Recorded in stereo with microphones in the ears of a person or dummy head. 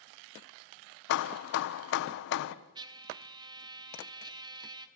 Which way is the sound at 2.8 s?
25° right (ahead or behind).